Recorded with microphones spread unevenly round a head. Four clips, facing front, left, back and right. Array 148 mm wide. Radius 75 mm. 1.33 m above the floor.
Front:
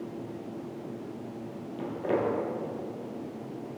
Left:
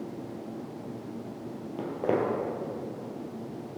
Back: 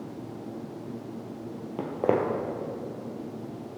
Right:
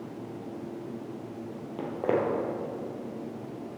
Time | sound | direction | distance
1.8 | footsteps | straight behind | 2 m